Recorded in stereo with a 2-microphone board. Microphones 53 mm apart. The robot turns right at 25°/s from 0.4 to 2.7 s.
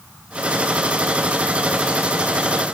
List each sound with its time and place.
Only background noise.